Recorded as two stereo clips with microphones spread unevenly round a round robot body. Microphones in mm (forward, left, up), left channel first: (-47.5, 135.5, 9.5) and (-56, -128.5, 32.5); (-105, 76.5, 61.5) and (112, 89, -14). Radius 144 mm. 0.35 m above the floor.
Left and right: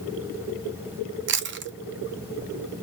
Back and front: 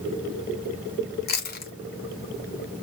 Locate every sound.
1.3 s chewing: 120° right, 0.6 m